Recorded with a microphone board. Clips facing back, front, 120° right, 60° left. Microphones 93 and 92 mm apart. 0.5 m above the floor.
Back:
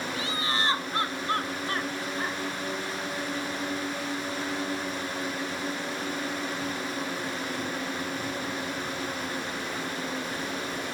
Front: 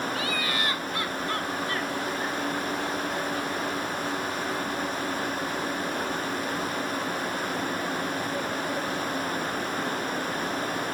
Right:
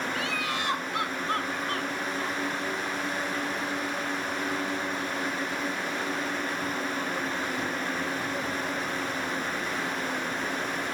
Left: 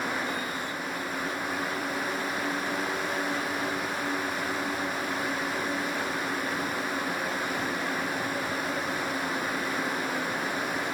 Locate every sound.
0.1 s laughter: 120° right; by 2.4 s 125° right